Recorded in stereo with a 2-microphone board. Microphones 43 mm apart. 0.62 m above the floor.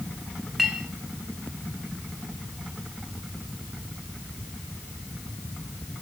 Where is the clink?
5° right (ahead or behind), 2.5 m.